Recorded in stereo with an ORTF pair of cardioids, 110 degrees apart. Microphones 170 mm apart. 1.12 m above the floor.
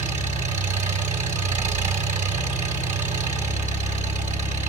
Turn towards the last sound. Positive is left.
turn(degrees=-45)